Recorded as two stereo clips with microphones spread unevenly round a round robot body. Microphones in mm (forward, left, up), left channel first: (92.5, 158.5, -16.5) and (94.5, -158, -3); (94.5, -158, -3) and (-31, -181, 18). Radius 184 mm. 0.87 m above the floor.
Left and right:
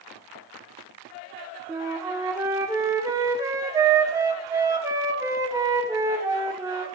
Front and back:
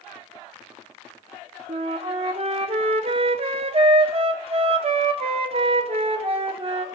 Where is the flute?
170° right, 0.5 m.